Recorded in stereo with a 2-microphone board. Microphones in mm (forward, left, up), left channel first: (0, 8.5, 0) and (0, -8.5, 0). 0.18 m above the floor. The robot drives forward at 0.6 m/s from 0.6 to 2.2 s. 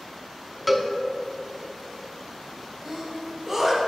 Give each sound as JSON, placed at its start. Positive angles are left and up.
{"t": 0.7, "sound": "a cowbell", "side_deg": 0, "distance_m": 0.5}
{"t": 2.9, "sound": "a sneeze", "side_deg": -20, "distance_m": 1.4}